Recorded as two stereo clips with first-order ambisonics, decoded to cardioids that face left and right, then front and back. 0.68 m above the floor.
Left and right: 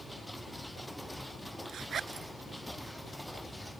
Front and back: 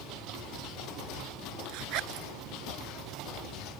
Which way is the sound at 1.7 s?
150° right.